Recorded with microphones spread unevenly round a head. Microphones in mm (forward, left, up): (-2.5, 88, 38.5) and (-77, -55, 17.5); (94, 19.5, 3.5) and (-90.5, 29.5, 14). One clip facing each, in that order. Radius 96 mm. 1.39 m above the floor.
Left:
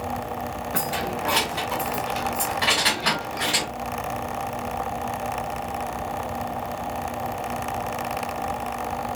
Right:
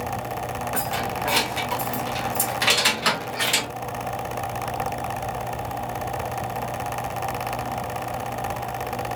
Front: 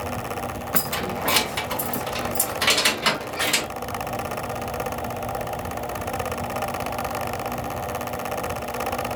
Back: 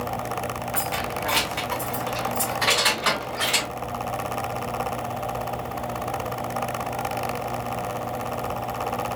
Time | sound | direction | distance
0.7 | keys jangling | straight ahead | 0.8 m